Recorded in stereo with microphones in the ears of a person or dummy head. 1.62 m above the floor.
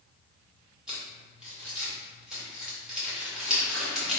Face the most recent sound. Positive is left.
turn(degrees=-10)  # may be behind; listen again after turning